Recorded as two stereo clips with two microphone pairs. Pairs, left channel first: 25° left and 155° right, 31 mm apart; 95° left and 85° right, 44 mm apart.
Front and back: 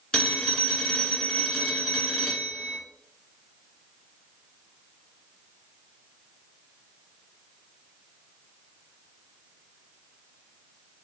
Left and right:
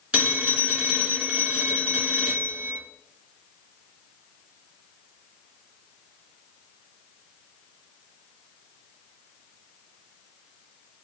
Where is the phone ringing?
25° right, 1.7 m.